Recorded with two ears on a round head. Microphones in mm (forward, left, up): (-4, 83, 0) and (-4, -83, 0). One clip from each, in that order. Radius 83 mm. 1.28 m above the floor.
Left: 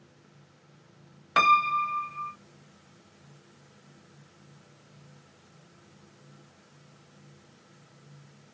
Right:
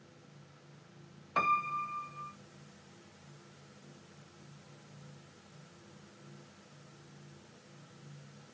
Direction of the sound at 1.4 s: 70° left (ahead or behind).